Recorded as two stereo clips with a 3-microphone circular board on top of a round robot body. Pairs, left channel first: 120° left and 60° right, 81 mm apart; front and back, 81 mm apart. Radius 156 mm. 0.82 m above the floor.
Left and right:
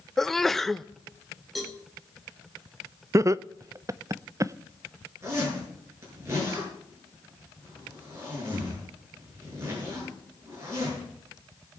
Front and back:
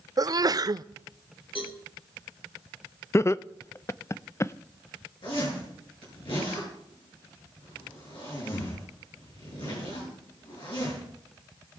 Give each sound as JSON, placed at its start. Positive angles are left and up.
{"t": 0.2, "sound": "a sneeze", "azimuth_deg": -155, "distance_m": 0.5}
{"t": 1.6, "sound": "a cowbell", "azimuth_deg": 30, "distance_m": 0.7}
{"t": 3.1, "sound": "laughter", "azimuth_deg": -35, "distance_m": 0.6}
{"t": 5.2, "sound": "a zipper", "azimuth_deg": -5, "distance_m": 7.5}